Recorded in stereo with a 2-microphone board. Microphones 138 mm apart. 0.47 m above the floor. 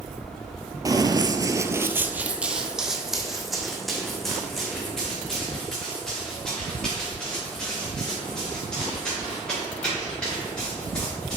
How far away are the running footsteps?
About 0.5 m.